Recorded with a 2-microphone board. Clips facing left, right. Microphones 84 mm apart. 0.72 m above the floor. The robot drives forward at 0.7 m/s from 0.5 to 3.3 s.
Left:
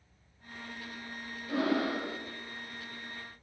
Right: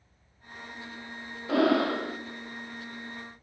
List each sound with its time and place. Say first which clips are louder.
1.5 s breathing: right 6 dB; 80° right, 0.6 m; by 2.2 s 50° right (ahead or behind), 0.7 m